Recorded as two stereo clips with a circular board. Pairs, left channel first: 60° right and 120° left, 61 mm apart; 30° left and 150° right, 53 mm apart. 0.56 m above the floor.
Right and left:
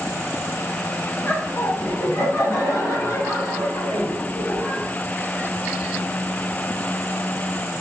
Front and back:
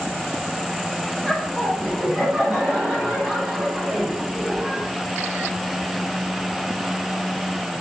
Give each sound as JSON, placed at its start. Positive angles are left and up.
{"t": 1.2, "sound": "laughter", "azimuth_deg": -40, "distance_m": 0.8}